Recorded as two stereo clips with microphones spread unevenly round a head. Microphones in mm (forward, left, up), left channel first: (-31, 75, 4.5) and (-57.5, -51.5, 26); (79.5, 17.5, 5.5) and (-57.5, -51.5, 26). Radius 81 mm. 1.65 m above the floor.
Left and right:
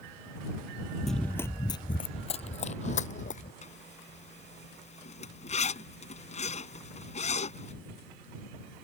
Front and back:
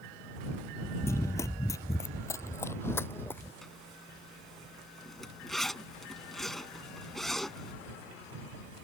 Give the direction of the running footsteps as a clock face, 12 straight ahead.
1 o'clock.